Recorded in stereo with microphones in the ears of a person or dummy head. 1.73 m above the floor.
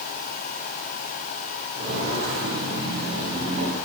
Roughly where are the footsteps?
Right.